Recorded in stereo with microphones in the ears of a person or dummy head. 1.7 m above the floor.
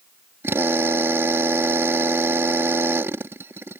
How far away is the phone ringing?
I don't hear a phone ringing.